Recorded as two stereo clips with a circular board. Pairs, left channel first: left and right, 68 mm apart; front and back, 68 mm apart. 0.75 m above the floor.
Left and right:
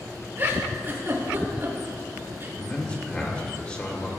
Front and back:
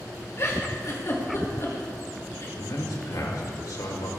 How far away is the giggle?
About 2.5 m.